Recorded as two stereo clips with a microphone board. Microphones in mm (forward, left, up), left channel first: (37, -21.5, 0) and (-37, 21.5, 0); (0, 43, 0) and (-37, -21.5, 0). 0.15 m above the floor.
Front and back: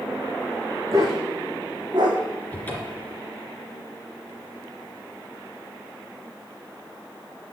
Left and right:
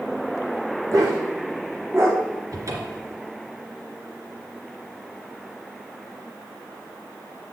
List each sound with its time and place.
0.9 s a dog barking: 155° right, 3.5 m; by 2.2 s straight behind, 4 m
2.5 s a cupboard door: 95° right, 2.5 m